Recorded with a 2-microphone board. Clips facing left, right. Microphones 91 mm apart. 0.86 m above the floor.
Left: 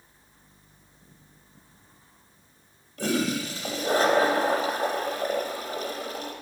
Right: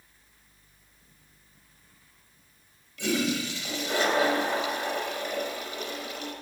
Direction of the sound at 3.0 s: 40° left (ahead or behind).